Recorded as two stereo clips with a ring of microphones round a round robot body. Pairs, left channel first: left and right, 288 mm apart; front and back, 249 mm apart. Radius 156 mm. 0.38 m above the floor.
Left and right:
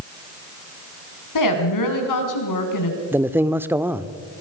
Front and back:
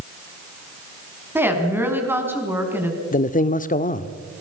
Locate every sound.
1.4 s a woman speaking: 100° left, 4.5 m
3.1 s a man speaking: 15° right, 0.9 m